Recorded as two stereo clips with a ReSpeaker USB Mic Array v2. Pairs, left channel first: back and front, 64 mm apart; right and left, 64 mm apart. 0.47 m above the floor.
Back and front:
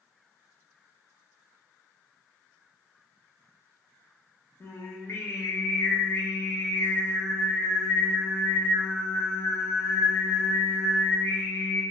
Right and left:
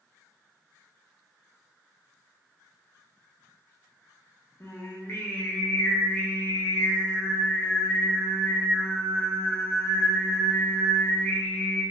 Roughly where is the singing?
Behind right.